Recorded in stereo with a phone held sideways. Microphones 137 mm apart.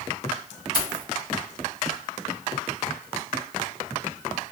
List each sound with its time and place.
0.7 s keys jangling: 30° left (ahead or behind), 1.0 m